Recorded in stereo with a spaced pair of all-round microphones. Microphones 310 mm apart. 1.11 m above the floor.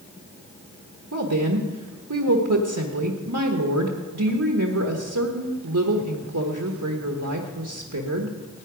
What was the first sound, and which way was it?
A woman speaking, 70° right (ahead or behind).